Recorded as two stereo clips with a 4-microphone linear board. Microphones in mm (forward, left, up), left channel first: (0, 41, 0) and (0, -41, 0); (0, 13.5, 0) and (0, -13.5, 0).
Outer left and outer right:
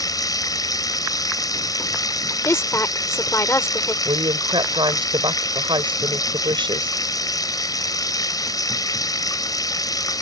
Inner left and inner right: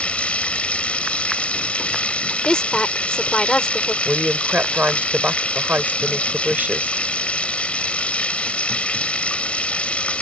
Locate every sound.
0.0 s running water: 50° left (ahead or behind)
2.4 s a woman speaking: 35° left (ahead or behind)
4.0 s a woman speaking: 85° right